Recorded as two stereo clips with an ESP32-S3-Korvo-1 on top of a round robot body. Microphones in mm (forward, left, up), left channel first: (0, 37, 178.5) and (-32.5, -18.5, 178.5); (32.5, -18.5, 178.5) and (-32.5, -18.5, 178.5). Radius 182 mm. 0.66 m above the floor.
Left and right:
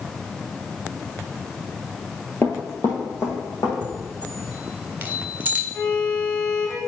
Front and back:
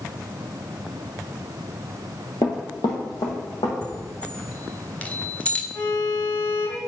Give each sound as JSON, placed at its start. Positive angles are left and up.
{"t": 2.4, "sound": "running footsteps", "azimuth_deg": 0, "distance_m": 0.7}
{"t": 3.8, "sound": "a chime", "azimuth_deg": -65, "distance_m": 1.3}
{"t": 5.7, "sound": "a violin", "azimuth_deg": 15, "distance_m": 4.0}